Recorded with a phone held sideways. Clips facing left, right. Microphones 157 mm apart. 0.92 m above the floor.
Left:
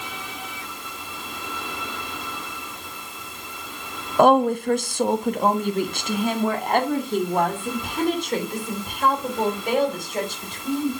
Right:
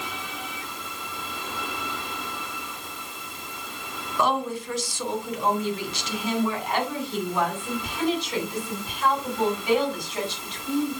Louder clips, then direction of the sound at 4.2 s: Left 9 dB; 55° left (ahead or behind).